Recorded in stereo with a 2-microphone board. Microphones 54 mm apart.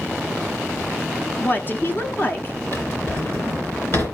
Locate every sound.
1.4 s a woman speaking: 40° left (ahead or behind), 1.3 m
2.7 s a drawer: 50° left (ahead or behind), 3 m